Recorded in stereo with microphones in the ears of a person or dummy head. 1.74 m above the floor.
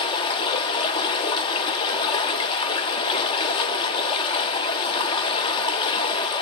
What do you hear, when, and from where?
0.0 s running water: 25° left (ahead or behind), 0.9 m